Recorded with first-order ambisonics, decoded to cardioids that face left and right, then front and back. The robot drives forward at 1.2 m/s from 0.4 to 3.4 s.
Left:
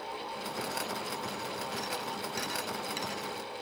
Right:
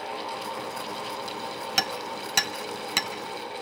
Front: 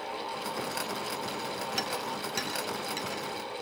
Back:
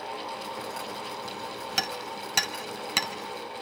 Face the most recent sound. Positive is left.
turn(degrees=-140)